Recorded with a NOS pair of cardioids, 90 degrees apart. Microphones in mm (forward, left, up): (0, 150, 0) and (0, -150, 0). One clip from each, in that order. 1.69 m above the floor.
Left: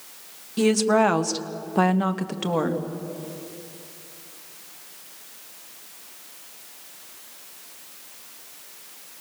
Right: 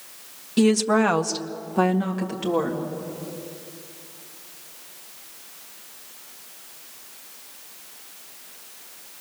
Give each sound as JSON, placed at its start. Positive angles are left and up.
{"t": 0.6, "sound": "a woman speaking", "azimuth_deg": -35, "distance_m": 1.4}